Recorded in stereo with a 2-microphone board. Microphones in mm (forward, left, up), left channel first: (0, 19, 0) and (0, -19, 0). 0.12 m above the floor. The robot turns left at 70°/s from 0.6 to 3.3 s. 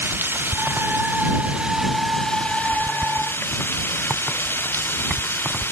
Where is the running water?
80° right; by 5.7 s 90° left.